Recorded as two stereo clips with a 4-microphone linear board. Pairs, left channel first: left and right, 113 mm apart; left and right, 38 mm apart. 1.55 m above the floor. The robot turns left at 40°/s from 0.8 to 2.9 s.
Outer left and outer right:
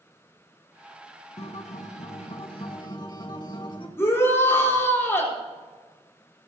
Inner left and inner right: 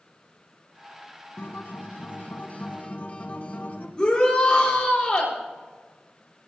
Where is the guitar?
105° left, 1.8 m; by 3.9 s 45° left, 1.8 m.